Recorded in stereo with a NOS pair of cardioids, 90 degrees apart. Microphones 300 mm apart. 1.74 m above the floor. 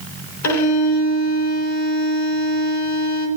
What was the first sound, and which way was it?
A violin, 70° left.